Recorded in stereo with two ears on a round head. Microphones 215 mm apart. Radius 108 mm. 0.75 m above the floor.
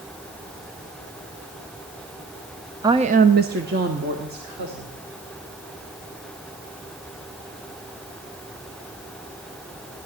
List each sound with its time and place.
2.8 s a woman speaking: 15° right (ahead or behind), 0.6 m; by 5.0 s 40° right (ahead or behind), 2.5 m